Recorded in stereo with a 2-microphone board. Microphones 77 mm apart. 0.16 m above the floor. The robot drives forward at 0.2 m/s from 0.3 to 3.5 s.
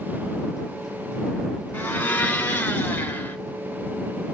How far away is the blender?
About 1.1 m.